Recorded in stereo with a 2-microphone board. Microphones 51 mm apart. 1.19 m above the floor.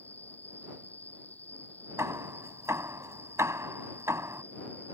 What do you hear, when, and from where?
0.0 s an insect: 30° left (ahead or behind)
2.0 s hammering: 75° right (ahead or behind)